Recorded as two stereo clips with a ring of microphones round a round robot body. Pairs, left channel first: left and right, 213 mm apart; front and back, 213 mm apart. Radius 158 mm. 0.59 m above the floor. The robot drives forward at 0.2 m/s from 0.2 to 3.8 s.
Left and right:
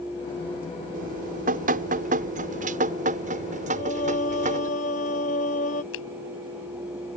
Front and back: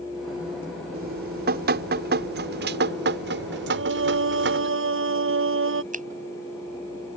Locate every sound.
0.9 s dripping: 135° right; by 4.7 s 145° right
3.7 s singing: 155° left
5.9 s a finger snap: 130° left